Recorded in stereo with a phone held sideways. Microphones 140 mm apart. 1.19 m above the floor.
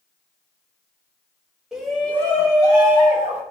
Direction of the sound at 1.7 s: 5° right (ahead or behind).